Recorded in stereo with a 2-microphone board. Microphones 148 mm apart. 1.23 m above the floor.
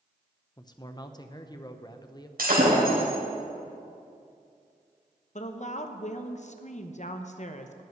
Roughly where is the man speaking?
Left.